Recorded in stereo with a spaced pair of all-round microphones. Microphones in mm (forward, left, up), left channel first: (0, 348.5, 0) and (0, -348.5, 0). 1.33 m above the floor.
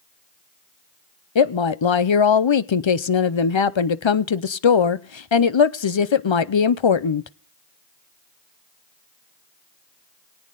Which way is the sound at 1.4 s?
45° left (ahead or behind).